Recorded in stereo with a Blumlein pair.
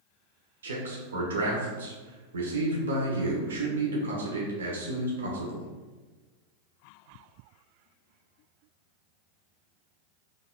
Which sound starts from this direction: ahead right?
A man speaking, at 0.6 s.